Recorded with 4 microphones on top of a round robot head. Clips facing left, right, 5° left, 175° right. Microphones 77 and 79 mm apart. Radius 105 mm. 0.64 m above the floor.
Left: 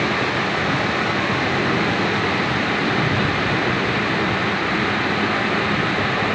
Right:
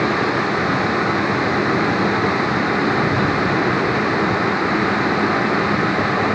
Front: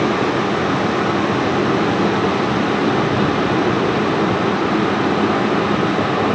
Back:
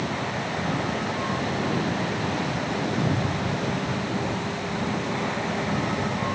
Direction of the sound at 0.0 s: 20° right.